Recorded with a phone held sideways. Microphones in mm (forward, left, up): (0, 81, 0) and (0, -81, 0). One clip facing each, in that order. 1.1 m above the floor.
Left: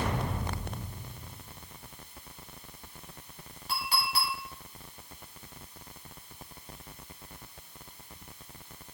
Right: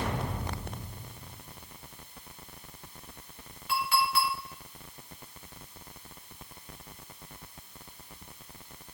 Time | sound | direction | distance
3.7 | a clink | 35° left (ahead or behind) | 3 m